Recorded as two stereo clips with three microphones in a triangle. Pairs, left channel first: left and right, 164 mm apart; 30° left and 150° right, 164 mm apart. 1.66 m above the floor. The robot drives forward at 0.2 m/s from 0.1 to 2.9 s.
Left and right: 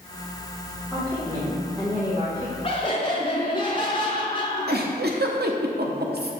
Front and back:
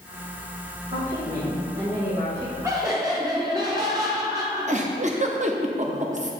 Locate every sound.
0.9 s a woman speaking: 155° right, 1.9 m; by 2.5 s 160° right, 2 m
2.6 s laughter: 145° left, 0.6 m
4.7 s a giggle: 105° right, 0.7 m